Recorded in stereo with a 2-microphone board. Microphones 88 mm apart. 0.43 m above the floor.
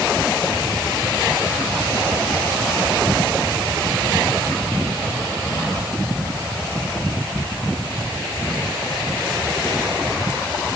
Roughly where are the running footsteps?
I don't hear running footsteps.